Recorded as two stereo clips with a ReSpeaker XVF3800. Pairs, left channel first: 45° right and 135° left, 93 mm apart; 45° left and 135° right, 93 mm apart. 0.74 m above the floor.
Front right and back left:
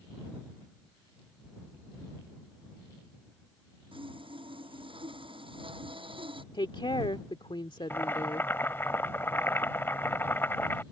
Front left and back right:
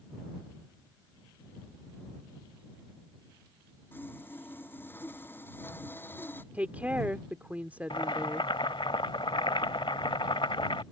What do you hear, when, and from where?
3.9 s sawing: 115° left
6.5 s a woman speaking: 65° right
7.9 s boiling: 20° left